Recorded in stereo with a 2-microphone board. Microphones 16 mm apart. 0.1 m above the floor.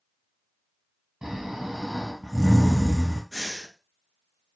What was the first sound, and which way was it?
Snoring, 35° right (ahead or behind).